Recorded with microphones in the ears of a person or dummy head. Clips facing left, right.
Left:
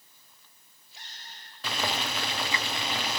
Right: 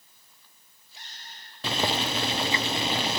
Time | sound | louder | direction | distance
1.6 | boiling | right 4 dB | 25° right (ahead or behind) | 0.5 m